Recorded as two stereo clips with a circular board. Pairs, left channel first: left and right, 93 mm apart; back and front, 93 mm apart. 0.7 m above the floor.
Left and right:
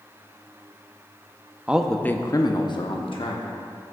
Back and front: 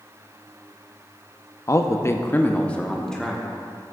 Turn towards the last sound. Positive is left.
turn(degrees=95)